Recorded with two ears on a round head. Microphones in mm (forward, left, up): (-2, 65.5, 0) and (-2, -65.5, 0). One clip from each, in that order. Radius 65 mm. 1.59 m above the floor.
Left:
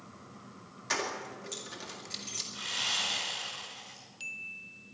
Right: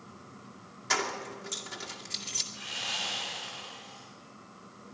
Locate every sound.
0.9 s keys jangling: 5° right (ahead or behind), 2 m
2.5 s sawing: 50° left (ahead or behind), 6.5 m